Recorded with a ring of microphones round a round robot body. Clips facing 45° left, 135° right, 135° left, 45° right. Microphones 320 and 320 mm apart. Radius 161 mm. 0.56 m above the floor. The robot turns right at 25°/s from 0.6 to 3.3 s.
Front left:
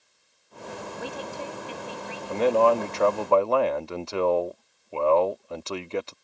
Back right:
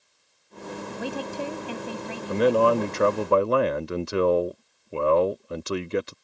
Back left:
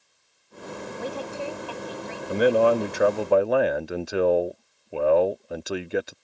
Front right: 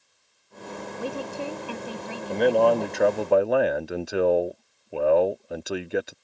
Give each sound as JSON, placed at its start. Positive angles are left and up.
{"t": 1.0, "sound": "a woman speaking", "azimuth_deg": -125}
{"t": 2.3, "sound": "a man speaking", "azimuth_deg": -160}